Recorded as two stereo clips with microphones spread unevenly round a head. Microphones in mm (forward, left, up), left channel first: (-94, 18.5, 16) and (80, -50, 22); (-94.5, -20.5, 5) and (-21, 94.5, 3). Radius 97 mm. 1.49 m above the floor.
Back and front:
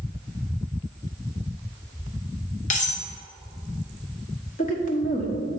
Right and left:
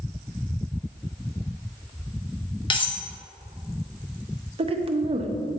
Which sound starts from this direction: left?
A woman speaking, at 4.6 s.